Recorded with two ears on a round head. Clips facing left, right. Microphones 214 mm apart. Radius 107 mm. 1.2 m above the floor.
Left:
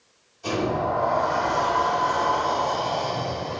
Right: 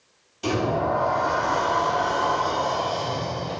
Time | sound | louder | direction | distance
0.4 | a sliding door | right 1 dB | 85° right | 3 m